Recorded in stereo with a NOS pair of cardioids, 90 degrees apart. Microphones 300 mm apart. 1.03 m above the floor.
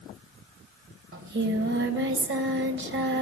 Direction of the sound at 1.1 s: 40° right.